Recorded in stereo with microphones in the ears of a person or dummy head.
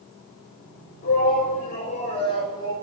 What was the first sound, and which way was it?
A shout, 55° left (ahead or behind).